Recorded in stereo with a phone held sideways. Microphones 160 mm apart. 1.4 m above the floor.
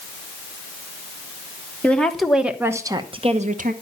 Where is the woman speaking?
10° left (ahead or behind), 1.6 m; by 3.7 s 60° right (ahead or behind), 1.1 m.